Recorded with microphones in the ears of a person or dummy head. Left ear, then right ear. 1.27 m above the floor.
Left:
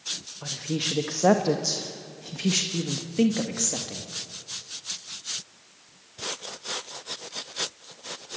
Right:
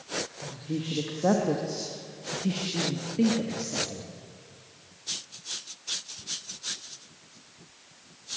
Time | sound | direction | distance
0.4 | a woman speaking | 70° left (ahead or behind) | 1.5 m